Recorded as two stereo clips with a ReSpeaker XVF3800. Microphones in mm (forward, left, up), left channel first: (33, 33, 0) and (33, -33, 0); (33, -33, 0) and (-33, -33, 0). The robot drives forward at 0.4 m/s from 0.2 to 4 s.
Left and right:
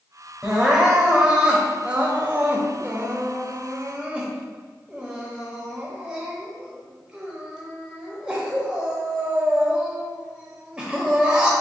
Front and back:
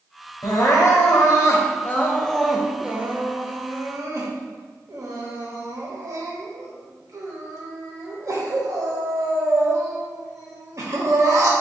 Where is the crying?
10° right, 1.0 m; by 11.5 s 165° right, 0.8 m.